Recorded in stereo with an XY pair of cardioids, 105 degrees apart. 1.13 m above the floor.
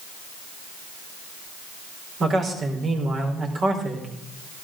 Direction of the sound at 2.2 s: 55° right.